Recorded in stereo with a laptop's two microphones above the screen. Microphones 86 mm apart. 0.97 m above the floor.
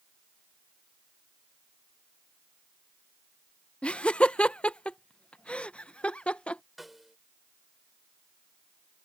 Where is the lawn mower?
I don't hear a lawn mower.